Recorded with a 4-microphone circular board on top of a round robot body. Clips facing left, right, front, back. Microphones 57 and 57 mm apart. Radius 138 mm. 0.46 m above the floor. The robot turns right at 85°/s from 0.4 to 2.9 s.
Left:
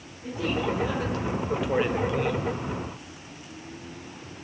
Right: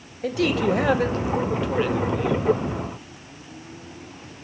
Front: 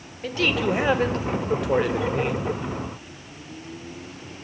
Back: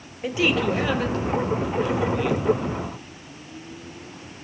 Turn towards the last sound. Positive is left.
turn(degrees=110)